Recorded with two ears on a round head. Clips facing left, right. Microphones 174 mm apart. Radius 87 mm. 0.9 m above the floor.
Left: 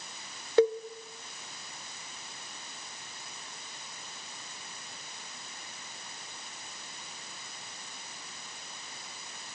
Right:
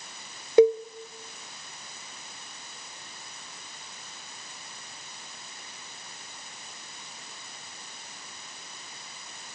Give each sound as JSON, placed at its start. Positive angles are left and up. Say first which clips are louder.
{"t": 0.6, "sound": "a cowbell", "louder": "right 6 dB", "side_deg": -15, "distance_m": 0.7}